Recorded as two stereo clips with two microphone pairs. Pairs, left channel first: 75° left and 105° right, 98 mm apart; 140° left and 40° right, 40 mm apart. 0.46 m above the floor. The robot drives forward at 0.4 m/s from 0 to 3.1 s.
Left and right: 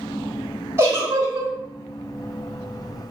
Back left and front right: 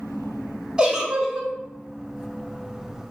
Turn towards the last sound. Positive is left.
turn(degrees=-145)